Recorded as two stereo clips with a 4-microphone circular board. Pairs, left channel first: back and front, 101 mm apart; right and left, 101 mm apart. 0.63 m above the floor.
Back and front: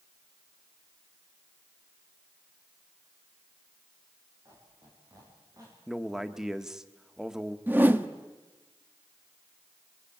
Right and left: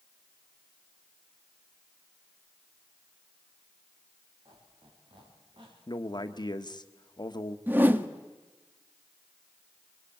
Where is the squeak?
50° left, 9.5 m.